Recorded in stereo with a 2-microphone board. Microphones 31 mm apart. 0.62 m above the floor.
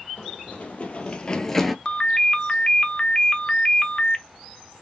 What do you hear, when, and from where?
0.2 s running footsteps: 70° left (ahead or behind), 1.4 m; by 1.8 s centre (ahead or behind), 0.7 m
1.9 s a ringtone: 30° left (ahead or behind), 0.6 m